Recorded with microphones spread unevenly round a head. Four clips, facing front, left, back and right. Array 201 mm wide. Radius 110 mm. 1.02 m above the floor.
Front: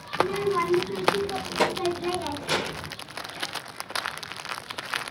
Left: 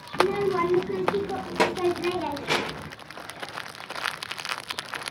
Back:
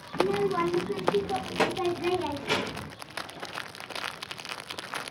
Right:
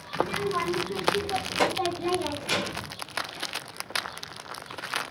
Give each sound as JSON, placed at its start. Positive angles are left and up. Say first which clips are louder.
{"t": 0.1, "sound": "a child speaking", "louder": "left 5 dB, front 1 dB", "azimuth_deg": 145, "distance_m": 0.8}